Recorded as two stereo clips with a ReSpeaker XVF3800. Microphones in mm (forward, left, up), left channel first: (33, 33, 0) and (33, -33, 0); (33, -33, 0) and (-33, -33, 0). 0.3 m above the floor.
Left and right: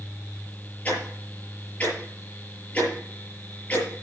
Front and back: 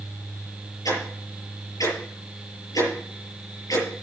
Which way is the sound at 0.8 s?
25° left.